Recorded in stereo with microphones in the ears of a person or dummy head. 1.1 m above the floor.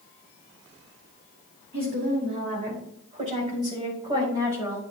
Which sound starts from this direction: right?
A woman speaking, at 1.7 s.